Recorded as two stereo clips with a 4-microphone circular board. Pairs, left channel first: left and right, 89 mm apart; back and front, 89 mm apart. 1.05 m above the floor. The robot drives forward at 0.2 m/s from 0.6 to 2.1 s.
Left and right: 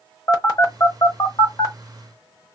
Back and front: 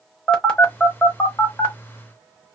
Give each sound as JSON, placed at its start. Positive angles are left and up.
{"t": 0.3, "sound": "a phone buzzing", "azimuth_deg": 110, "distance_m": 1.0}